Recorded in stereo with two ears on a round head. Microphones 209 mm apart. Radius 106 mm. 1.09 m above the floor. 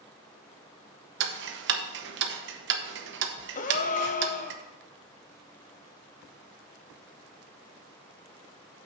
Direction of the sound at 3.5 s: 35° left (ahead or behind).